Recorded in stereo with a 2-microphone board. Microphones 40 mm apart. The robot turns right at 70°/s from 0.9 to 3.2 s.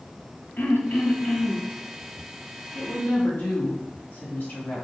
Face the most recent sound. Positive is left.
turn(degrees=115)